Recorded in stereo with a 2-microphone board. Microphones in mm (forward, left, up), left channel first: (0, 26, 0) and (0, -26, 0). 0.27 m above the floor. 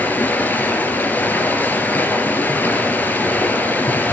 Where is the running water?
30° left (ahead or behind), 3 m.